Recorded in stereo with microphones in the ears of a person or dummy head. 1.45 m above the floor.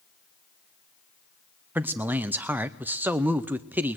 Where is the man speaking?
10° right (ahead or behind), 0.7 m.